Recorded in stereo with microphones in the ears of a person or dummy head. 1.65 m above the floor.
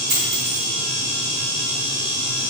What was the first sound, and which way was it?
A dropped coin, 25° right (ahead or behind).